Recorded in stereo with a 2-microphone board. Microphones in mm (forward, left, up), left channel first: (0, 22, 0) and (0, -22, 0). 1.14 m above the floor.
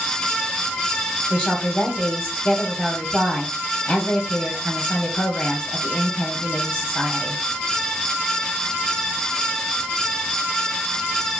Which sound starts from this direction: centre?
A woman speaking, at 1.3 s.